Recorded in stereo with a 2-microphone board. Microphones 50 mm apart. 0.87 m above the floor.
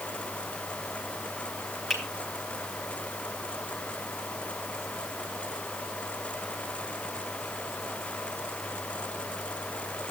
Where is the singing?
I don't hear singing.